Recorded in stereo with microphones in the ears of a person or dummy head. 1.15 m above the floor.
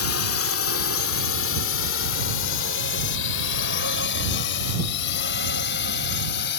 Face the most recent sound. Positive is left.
turn(degrees=65)  # may be behind; listen again after turning